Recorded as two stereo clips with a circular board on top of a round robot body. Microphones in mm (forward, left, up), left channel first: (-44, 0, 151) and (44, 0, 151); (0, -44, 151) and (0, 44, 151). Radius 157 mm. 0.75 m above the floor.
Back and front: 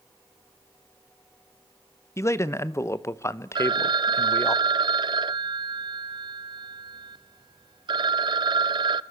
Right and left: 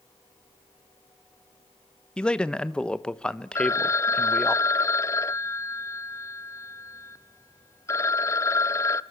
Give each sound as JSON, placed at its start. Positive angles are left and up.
{"t": 2.2, "sound": "a man speaking", "azimuth_deg": -160, "distance_m": 1.2}
{"t": 3.5, "sound": "a phone ringing", "azimuth_deg": -30, "distance_m": 0.6}